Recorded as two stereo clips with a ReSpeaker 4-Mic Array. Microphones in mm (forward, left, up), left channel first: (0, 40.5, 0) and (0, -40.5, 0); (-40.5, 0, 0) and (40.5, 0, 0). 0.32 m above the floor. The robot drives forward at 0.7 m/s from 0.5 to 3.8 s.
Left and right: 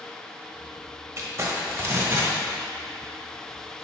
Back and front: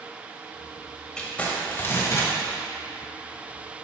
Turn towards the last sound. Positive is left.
turn(degrees=-160)